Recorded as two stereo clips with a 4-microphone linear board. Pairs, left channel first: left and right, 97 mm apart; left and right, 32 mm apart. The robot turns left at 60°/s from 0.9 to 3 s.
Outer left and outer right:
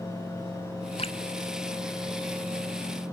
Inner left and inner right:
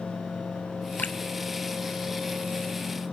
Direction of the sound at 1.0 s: 80° left.